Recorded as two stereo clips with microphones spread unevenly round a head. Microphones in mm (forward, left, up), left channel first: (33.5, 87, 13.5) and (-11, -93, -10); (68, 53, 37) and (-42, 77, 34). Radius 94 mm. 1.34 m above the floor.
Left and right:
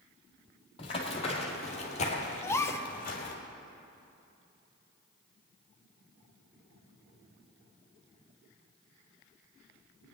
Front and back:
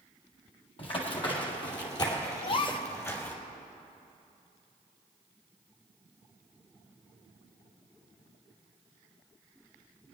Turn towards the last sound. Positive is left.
turn(degrees=10)